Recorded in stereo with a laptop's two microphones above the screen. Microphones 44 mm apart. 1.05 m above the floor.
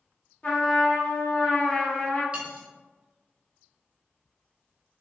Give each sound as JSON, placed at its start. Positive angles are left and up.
{"t": 0.4, "sound": "a trumpet", "side_deg": 30, "distance_m": 0.8}
{"t": 2.3, "sound": "cutlery clinking", "side_deg": -30, "distance_m": 0.5}